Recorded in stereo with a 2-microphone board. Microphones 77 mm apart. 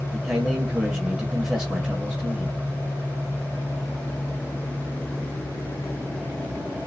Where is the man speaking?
10° right (ahead or behind), 1.1 m.